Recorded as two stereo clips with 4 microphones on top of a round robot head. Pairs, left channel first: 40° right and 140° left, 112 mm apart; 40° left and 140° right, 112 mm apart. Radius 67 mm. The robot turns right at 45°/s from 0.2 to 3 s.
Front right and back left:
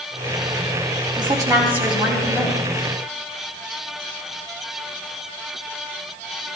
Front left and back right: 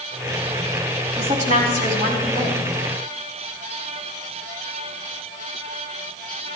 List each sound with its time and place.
1.2 s a woman speaking: 175° right, 4.5 m; by 2.6 s 110° right, 4.5 m